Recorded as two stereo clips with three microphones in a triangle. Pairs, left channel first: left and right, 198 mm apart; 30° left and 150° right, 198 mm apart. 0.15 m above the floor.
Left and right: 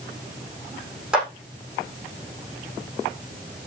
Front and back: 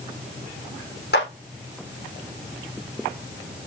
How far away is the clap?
About 6.5 m.